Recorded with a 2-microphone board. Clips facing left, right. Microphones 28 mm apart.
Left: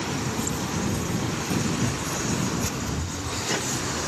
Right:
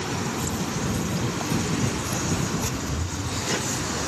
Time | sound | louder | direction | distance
0.4 | footsteps | even | 40° right (ahead or behind) | ?